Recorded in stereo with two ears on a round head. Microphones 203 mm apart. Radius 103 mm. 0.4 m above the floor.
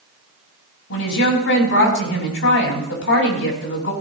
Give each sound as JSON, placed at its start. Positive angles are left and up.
{"t": 0.9, "sound": "a woman speaking", "side_deg": 65, "distance_m": 3.0}